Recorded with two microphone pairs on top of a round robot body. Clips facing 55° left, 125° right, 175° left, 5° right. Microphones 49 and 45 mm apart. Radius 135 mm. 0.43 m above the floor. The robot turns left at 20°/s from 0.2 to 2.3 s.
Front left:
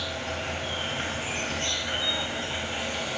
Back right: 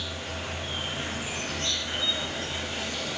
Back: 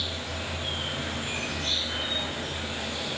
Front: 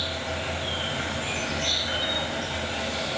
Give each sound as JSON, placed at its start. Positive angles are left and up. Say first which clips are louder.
{"t": 0.0, "sound": "an insect", "louder": "front left 3 dB, front 4 dB", "azimuth_deg": 35, "distance_m": 1.0}